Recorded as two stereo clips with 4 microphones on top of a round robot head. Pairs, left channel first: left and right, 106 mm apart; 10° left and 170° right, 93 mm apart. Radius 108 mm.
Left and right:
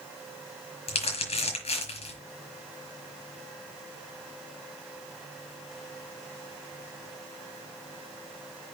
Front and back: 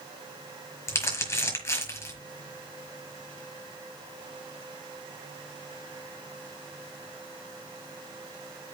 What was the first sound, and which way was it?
Crumpling, 70° left.